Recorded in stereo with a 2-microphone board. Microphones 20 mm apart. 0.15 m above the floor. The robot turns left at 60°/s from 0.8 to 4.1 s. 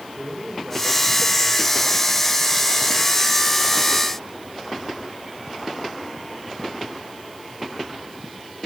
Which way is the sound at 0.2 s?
165° right.